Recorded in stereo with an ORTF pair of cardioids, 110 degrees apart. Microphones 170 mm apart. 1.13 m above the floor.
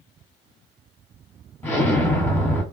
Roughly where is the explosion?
Ahead.